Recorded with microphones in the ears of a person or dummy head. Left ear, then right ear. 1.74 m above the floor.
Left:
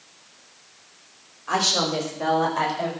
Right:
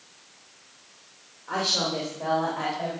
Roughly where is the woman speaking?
Left.